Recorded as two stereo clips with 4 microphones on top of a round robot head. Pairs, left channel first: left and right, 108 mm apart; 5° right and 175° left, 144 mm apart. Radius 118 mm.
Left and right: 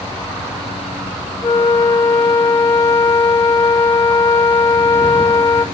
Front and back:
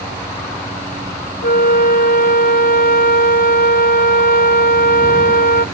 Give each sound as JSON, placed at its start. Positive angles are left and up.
{"t": 1.4, "sound": "a flute", "azimuth_deg": 20, "distance_m": 1.1}